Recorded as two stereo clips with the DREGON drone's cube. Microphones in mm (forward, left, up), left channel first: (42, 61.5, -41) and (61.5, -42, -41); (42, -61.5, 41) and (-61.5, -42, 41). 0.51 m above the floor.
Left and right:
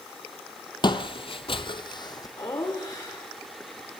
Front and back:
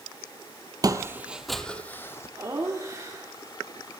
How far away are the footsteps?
About 0.8 m.